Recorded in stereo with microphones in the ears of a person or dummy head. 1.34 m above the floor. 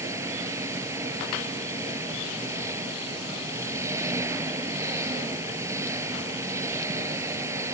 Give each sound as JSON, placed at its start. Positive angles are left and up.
{"t": 0.0, "sound": "an engine running", "side_deg": -20}